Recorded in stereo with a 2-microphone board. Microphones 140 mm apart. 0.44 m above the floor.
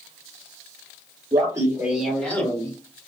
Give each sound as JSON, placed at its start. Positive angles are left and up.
{"t": 1.3, "sound": "laughter", "side_deg": -30, "distance_m": 1.6}